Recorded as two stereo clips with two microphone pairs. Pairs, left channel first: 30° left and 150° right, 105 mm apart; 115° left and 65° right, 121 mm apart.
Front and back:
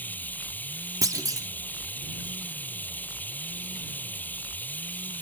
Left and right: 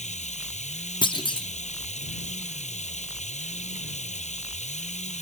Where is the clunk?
155° left.